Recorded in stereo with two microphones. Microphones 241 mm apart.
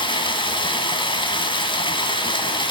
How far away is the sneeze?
No sneeze in this recording.